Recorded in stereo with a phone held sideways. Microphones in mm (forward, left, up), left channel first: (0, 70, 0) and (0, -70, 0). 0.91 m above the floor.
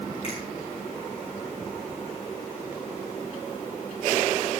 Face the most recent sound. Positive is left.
turn(degrees=40)  # may be behind; listen again after turning